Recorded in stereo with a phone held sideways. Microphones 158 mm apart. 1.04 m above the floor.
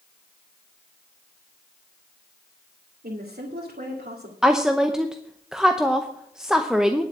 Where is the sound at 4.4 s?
5° right (ahead or behind), 0.8 m.